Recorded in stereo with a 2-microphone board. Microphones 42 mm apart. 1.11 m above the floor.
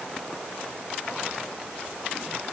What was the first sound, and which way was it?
Only background noise.